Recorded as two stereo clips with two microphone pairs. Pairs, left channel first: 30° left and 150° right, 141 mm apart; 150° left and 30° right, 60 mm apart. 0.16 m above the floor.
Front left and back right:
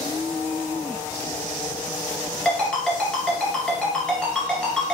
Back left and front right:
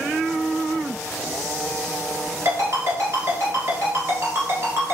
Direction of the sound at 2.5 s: 50° right.